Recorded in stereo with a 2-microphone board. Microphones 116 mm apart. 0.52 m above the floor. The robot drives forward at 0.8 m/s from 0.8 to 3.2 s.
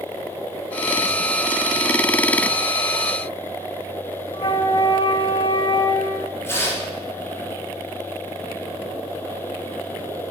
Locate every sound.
4.3 s a flute: 50° left (ahead or behind), 0.6 m
6.4 s tearing paper: 20° left (ahead or behind), 2.5 m